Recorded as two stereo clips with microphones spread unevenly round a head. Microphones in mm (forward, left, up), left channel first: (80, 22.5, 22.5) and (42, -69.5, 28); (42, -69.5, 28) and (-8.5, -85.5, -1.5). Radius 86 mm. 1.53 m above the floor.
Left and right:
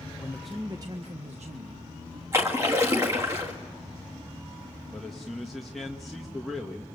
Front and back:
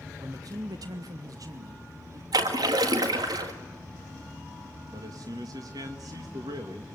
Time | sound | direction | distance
0.2 | a man speaking | 140° left | 1.0 m
2.3 | a splash | 175° left | 1.8 m
4.9 | a man speaking | 160° left | 1.7 m